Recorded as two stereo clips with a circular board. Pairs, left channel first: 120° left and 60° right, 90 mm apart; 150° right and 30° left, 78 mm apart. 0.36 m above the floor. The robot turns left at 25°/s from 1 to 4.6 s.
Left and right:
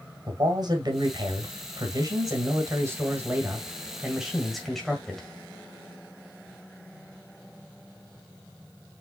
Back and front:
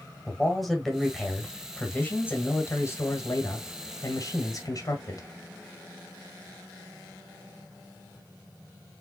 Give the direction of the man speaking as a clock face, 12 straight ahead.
2 o'clock.